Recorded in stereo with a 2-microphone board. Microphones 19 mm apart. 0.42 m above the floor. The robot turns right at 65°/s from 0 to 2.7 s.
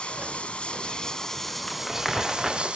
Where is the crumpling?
35° left (ahead or behind), 5 m; by 2.8 s 30° right (ahead or behind), 5 m.